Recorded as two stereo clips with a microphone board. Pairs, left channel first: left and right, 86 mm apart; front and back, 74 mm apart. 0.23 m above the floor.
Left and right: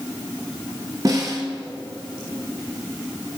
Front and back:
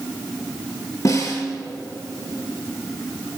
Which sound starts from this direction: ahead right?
A snare drum, at 1.1 s.